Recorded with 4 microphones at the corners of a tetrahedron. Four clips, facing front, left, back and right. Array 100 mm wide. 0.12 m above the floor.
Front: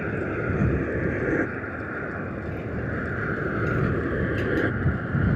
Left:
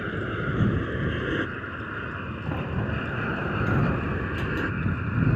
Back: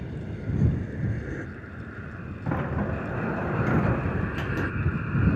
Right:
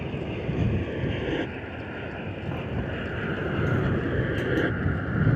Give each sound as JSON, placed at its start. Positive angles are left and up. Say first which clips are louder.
{"t": 0.0, "sound": "an aircraft", "louder": "left 2 dB, front 9 dB", "azimuth_deg": 10}
{"t": 2.5, "sound": "a sliding door", "louder": "left 2 dB, back 2 dB", "azimuth_deg": 165}